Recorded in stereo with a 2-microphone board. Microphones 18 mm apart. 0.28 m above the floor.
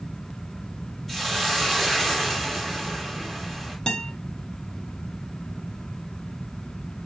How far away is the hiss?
About 1.8 m.